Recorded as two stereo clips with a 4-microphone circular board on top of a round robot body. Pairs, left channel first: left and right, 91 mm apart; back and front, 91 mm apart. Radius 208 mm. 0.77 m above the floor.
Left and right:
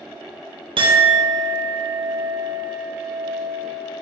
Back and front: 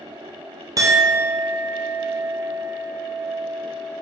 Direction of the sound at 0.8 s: 55° right.